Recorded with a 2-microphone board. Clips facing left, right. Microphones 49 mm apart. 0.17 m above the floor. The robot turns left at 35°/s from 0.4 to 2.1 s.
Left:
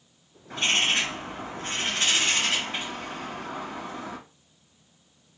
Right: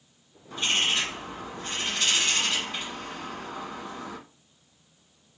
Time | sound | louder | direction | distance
0.5 | a bird | left 2 dB | 95° left | 2.5 m